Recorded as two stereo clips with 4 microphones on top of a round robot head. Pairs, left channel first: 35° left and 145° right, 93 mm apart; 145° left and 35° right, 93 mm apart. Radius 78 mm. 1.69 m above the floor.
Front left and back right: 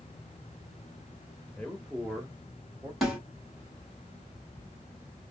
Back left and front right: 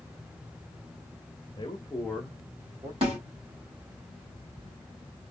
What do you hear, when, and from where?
1.6 s a man speaking: 105° left, 0.7 m; by 2.9 s 80° right, 0.8 m
3.0 s a snare drum: 60° right, 1.8 m